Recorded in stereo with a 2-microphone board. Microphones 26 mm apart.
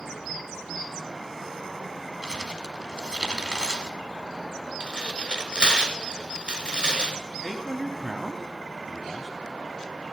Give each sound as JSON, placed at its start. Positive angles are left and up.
{"t": 2.2, "sound": "crumpling", "side_deg": -25, "distance_m": 1.6}
{"t": 4.8, "sound": "tearing paper", "side_deg": -30, "distance_m": 2.5}
{"t": 7.4, "sound": "a man speaking", "side_deg": 5, "distance_m": 1.2}